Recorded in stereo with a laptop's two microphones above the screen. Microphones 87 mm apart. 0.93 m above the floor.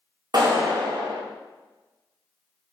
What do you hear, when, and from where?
0.3 s a clap: 50° right (ahead or behind), 2.5 m